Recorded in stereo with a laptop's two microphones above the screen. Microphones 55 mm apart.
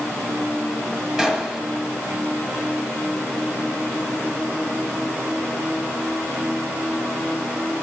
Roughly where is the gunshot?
Centre.